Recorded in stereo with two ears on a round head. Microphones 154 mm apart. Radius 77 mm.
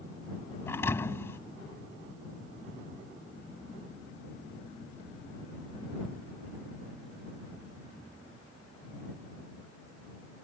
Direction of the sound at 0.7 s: 15° left (ahead or behind).